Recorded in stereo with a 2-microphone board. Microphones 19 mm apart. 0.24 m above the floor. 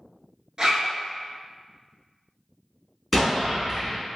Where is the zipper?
35° right (ahead or behind), 0.8 m.